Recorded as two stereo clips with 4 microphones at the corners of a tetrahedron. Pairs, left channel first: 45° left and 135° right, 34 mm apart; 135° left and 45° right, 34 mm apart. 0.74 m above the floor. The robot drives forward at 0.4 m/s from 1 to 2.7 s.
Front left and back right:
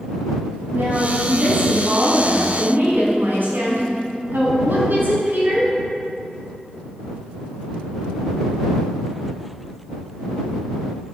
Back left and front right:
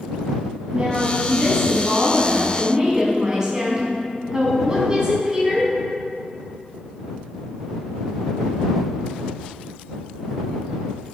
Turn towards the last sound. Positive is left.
turn(degrees=-115)